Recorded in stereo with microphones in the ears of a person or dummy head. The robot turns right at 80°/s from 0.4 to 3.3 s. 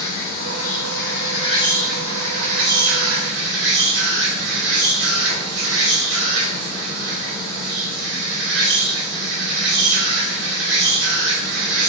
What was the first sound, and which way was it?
An insect, 60° left.